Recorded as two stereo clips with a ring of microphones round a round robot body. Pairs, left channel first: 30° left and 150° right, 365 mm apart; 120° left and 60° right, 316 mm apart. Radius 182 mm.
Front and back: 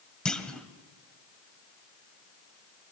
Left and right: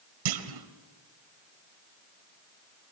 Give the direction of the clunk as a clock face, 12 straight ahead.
2 o'clock.